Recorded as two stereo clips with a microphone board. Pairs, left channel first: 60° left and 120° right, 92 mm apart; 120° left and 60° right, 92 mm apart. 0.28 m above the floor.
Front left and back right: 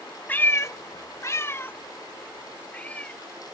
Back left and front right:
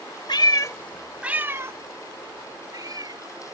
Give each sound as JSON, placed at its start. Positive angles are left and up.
{"t": 0.3, "sound": "a cat meowing", "azimuth_deg": 125}